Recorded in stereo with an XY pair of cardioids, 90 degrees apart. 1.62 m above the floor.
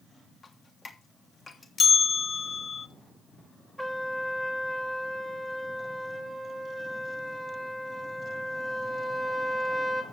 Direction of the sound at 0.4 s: 35° left.